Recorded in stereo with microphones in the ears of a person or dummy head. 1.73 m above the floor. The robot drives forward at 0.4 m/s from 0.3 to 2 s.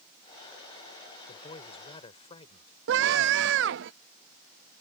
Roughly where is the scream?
Right.